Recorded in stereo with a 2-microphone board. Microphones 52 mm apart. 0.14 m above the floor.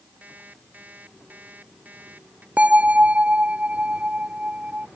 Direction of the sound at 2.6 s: 25° right (ahead or behind).